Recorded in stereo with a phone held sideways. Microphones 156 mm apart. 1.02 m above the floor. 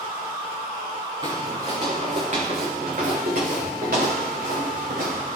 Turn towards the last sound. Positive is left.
turn(degrees=-80)